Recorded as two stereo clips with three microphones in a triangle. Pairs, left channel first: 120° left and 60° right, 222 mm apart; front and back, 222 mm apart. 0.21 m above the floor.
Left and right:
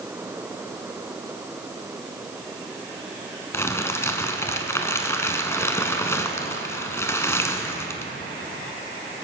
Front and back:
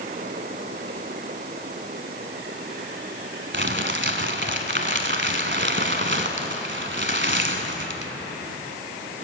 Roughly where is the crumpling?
Behind.